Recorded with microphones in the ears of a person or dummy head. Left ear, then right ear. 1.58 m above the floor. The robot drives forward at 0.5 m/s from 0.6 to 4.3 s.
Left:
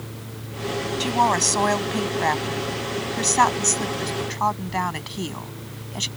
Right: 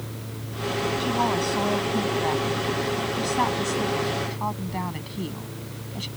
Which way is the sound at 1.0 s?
55° left (ahead or behind).